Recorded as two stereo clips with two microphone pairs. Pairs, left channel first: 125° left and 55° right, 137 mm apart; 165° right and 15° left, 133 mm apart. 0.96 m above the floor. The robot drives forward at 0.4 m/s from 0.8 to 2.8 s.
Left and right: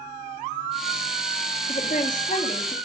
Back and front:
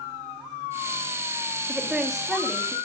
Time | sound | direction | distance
1.7 | a woman speaking | 95° left | 1.6 m